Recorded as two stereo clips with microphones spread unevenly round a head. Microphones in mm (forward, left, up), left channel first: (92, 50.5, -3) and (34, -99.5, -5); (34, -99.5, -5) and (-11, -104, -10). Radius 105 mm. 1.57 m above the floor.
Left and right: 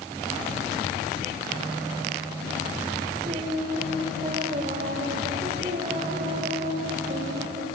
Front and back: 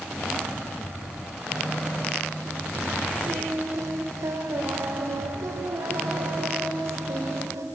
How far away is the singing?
About 5.5 m.